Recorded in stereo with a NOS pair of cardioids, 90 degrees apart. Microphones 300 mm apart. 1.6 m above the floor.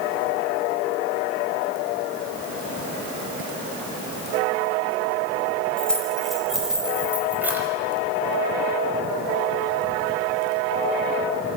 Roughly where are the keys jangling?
Ahead.